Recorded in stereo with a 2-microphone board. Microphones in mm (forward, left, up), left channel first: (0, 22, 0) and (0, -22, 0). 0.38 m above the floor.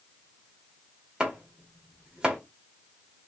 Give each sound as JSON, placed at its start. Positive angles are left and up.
{"t": 1.2, "sound": "chopping", "side_deg": -20, "distance_m": 1.2}